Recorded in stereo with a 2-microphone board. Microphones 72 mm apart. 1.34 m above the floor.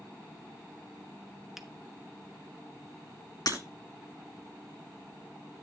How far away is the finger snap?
About 0.9 m.